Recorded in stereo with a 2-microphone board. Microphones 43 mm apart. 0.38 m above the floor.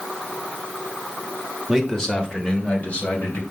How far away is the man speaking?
About 1.5 m.